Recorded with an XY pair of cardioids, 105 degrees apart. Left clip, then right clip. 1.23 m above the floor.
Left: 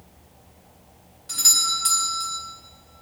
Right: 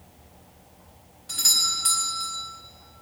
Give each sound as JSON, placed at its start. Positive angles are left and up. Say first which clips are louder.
{"t": 1.3, "sound": "a doorbell", "louder": "left 2 dB", "azimuth_deg": 20, "distance_m": 4.5}